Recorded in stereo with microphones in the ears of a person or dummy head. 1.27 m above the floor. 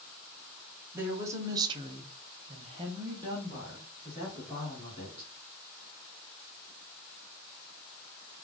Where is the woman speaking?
15° right (ahead or behind), 0.9 m; by 5.3 s 10° right (ahead or behind), 2 m.